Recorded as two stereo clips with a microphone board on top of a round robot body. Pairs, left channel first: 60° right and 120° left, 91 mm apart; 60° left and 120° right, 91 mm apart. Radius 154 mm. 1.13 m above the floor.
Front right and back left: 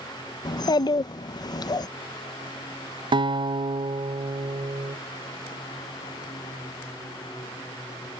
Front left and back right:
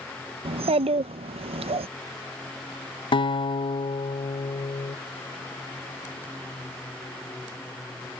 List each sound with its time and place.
0.5 s a child speaking: 110° right
3.1 s a guitar: 85° left